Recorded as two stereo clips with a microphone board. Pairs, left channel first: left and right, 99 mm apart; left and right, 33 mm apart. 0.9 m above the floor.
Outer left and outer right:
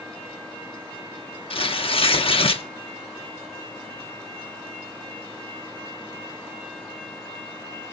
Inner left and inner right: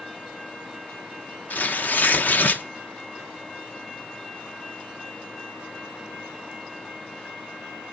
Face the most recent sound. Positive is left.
turn(degrees=65)  # may be behind; listen again after turning